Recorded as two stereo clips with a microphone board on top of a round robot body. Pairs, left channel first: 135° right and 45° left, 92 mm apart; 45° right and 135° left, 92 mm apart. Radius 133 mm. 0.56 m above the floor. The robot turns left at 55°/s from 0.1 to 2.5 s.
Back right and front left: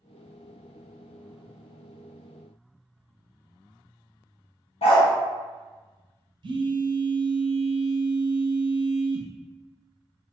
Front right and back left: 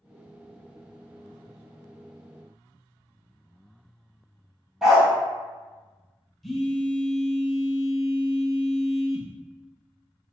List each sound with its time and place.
4.8 s a dog barking: 140° right, 0.6 m
6.4 s a phone buzzing: 45° left, 0.6 m